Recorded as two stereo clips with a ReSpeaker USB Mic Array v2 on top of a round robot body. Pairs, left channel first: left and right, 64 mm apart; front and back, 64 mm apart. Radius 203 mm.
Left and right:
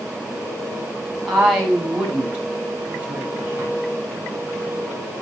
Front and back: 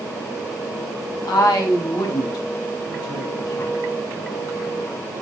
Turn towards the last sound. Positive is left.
turn(degrees=-30)